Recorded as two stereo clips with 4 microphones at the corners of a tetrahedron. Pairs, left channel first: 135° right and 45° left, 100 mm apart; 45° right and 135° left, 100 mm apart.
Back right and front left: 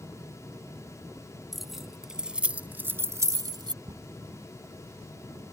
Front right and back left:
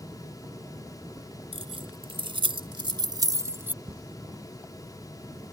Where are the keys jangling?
135° left; by 3.7 s 70° left.